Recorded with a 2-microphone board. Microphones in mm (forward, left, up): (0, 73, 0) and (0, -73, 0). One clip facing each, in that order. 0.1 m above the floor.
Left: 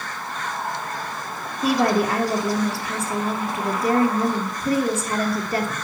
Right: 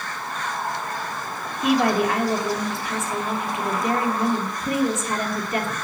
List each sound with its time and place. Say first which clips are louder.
1.6 s a woman speaking: even; 35° left (ahead or behind), 2.5 m